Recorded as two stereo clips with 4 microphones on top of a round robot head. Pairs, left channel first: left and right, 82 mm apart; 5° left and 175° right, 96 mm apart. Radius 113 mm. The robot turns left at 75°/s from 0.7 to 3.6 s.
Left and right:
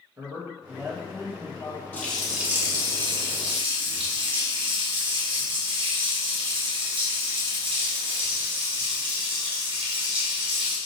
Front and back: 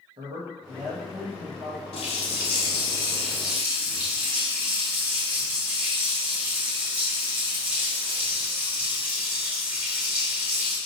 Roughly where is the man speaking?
Behind right.